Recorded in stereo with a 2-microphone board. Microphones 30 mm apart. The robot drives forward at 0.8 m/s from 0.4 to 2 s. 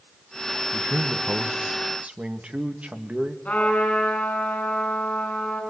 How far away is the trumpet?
About 7 m.